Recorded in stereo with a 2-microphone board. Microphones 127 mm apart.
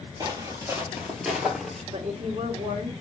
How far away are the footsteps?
About 1.5 m.